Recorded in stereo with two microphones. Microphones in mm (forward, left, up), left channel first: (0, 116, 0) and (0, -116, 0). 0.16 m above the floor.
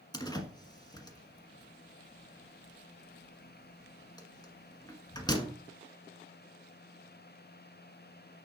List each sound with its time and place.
0.1 s a door slam: 15° left (ahead or behind), 1.4 m